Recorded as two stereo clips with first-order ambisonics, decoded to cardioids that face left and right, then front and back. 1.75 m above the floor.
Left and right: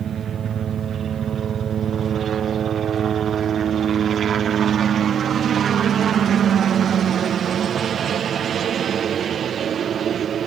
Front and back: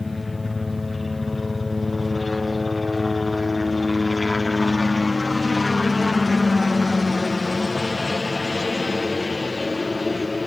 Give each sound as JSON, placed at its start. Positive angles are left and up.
{"t": 0.0, "sound": "a helicopter", "azimuth_deg": -75}